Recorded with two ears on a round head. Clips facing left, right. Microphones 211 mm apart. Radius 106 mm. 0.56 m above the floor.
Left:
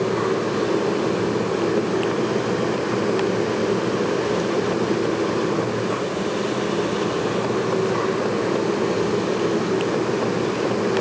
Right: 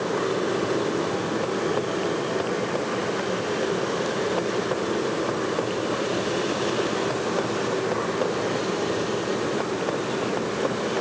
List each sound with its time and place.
Only background noise.